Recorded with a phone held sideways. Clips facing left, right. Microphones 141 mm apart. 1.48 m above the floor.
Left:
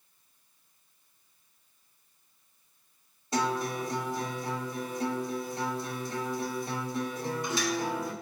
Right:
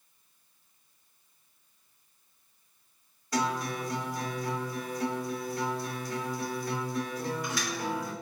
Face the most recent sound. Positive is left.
turn(degrees=25)  # may be behind; listen again after turning